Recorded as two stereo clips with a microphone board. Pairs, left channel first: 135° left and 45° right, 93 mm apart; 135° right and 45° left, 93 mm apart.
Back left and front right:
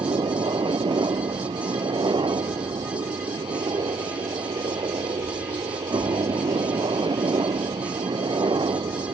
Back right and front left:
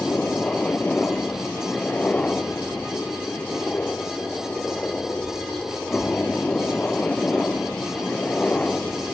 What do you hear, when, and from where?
0.0 s a helicopter: 60° right